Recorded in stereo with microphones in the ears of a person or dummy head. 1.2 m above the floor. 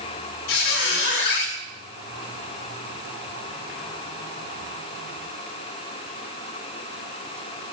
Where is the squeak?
65° left (ahead or behind), 2.0 m.